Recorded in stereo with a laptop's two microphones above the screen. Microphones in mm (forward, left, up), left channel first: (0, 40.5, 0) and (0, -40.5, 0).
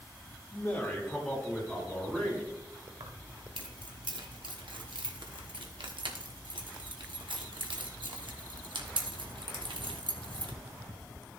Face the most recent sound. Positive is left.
turn(degrees=-85)